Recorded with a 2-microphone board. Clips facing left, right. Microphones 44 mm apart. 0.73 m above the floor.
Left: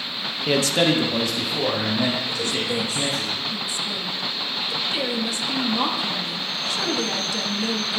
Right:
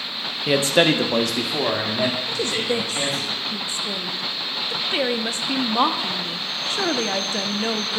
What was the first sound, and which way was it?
A man speaking, 5° right (ahead or behind).